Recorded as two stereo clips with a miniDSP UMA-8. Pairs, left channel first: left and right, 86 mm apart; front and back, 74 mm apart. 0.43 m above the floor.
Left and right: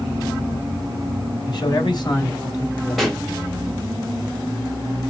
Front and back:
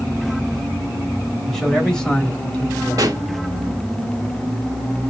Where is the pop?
Straight behind, 1.5 m.